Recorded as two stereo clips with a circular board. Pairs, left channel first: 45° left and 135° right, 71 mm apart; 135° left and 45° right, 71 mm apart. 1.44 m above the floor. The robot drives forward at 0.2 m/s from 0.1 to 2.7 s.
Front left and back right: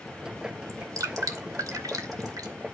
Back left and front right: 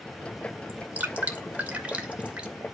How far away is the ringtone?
I don't hear a ringtone.